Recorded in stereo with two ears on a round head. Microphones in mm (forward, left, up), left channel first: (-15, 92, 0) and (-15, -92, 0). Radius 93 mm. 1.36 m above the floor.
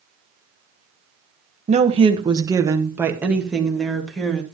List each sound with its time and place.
1.7 s a woman speaking: 35° right (ahead or behind), 1.3 m; by 4.4 s 5° left (ahead or behind), 2.5 m